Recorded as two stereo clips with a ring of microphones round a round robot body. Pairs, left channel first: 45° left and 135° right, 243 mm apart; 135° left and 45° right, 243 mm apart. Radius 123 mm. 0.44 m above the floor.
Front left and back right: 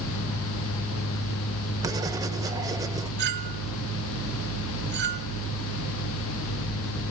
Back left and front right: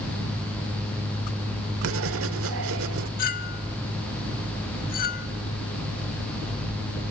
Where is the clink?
175° right, 1.1 m.